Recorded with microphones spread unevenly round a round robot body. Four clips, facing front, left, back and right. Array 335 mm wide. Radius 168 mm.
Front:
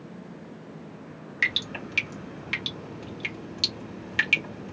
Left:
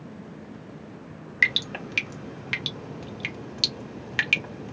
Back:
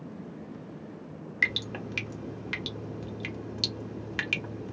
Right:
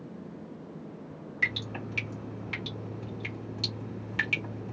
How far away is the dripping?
About 1.3 m.